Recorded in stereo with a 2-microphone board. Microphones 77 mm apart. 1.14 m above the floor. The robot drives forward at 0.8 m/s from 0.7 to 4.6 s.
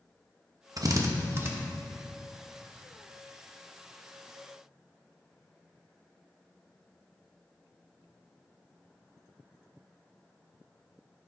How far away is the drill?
About 0.9 m.